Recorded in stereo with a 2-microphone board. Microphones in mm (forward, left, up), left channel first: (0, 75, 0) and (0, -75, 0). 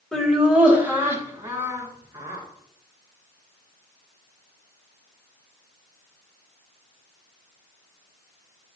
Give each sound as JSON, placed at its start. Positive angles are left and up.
{"t": 0.1, "sound": "laughter", "side_deg": 5, "distance_m": 1.3}